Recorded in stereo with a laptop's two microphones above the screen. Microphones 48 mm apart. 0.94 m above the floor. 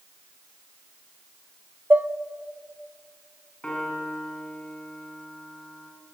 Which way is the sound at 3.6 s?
20° left (ahead or behind).